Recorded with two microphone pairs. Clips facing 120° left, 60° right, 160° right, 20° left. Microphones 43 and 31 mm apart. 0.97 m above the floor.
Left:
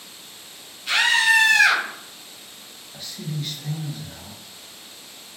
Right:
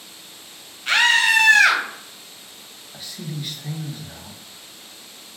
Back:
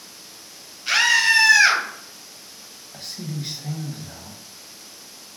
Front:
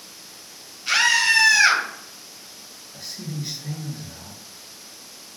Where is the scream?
80° right, 0.9 m.